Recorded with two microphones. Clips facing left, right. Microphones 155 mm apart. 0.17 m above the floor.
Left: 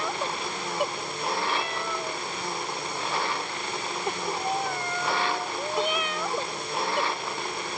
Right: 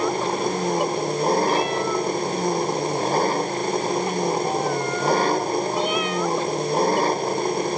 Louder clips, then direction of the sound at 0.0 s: Right 9 dB; 40° right (ahead or behind).